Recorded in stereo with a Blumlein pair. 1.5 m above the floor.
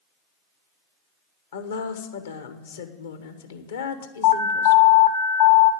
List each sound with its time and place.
1.5 s a woman speaking: 65° left, 1.3 m
4.2 s an alarm: 45° left, 1.3 m